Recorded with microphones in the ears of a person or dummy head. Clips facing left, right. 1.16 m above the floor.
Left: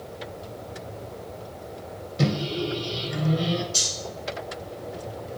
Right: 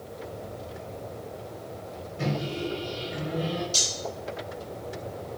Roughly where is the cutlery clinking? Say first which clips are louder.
Even; right.